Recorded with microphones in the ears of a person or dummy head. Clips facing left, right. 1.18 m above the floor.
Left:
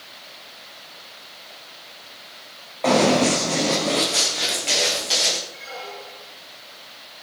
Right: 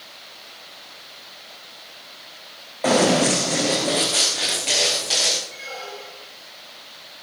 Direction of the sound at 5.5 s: 40° right (ahead or behind).